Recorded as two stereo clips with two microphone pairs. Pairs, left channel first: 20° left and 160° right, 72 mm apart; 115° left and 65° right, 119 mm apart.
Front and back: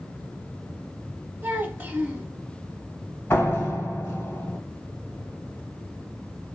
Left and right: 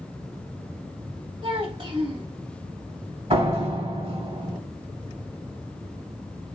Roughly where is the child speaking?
Right.